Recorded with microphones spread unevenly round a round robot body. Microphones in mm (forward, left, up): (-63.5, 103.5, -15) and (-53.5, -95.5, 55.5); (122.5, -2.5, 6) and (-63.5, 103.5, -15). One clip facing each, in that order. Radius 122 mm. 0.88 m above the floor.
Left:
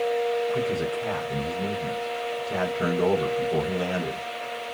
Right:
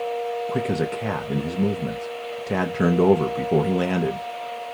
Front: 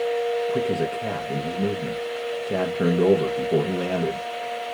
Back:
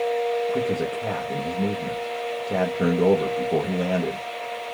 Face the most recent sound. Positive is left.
turn(degrees=-110)